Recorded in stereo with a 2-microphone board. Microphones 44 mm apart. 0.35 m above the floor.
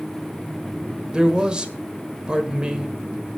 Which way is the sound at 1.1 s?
20° right (ahead or behind).